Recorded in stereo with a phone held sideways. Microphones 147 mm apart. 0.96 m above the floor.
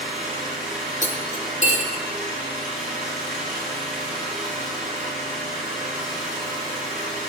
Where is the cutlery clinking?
55° left (ahead or behind), 1.6 m.